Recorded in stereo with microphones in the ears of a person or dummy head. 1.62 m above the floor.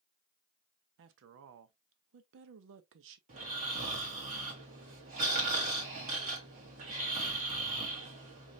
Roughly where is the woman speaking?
Right.